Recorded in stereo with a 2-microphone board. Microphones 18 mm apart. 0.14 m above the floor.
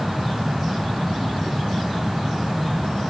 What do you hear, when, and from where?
Only background noise.